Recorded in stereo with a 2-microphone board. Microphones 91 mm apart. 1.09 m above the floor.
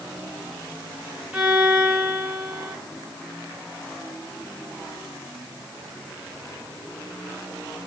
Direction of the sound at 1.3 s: 15° right (ahead or behind).